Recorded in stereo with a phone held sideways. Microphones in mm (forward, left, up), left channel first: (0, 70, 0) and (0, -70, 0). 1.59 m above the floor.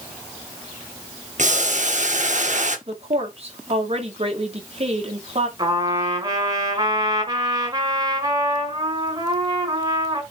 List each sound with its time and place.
1.4 s boiling: 60° right (ahead or behind), 1.6 m
2.9 s a woman speaking: 45° right (ahead or behind), 2.5 m
5.6 s a trumpet: 30° right (ahead or behind), 4.5 m